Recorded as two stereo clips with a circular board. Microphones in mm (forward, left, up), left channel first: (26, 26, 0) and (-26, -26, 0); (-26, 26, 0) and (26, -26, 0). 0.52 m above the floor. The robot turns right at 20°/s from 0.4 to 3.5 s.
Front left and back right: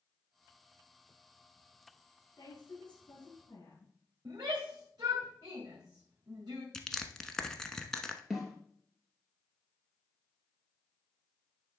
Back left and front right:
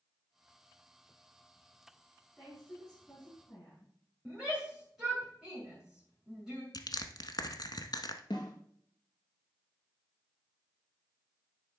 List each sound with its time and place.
2.4 s a woman speaking: 55° left, 5.5 m; by 3.9 s 80° left, 5.5 m
4.2 s a shout: 130° right, 2.5 m
6.7 s crushing: 125° left, 0.8 m
8.3 s a snare drum: 135° left, 2 m